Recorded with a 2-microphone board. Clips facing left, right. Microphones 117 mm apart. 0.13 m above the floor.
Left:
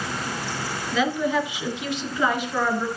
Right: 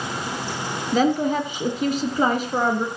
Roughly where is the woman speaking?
Right.